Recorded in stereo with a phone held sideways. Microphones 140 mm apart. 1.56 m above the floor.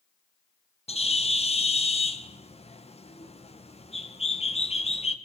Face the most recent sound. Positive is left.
turn(degrees=50)  # may be behind; listen again after turning